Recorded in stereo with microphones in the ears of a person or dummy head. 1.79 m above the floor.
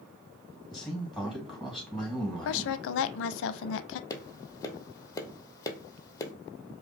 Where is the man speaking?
5° right (ahead or behind), 2.5 m.